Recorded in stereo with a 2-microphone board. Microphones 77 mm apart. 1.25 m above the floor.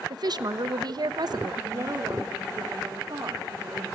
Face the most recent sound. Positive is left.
turn(degrees=-35)  # may be behind; listen again after turning